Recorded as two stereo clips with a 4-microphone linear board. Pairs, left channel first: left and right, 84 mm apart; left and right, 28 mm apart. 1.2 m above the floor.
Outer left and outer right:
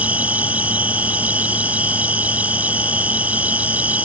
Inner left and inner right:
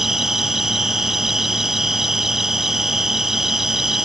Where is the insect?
15° right (ahead or behind).